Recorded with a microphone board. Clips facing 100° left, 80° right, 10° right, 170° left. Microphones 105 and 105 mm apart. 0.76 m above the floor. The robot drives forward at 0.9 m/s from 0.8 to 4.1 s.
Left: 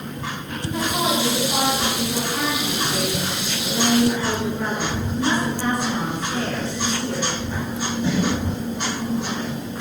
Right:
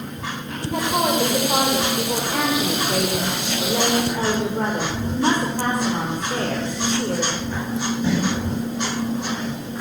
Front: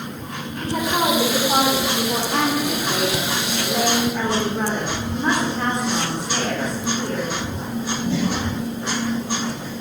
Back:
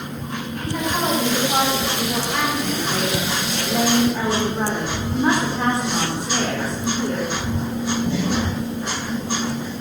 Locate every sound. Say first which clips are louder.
0.6 s a woman speaking: right 2 dB, front 3 dB; 50° right, 3.5 m; by 7.3 s 105° right, 3 m